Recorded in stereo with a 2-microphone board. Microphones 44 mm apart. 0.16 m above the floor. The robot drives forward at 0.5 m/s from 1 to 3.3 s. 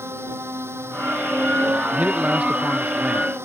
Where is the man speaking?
30° right (ahead or behind).